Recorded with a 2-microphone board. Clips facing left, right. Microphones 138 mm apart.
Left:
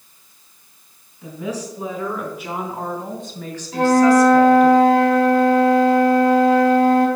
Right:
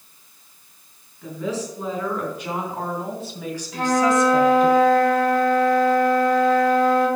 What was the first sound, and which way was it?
A woman speaking, 15° left (ahead or behind).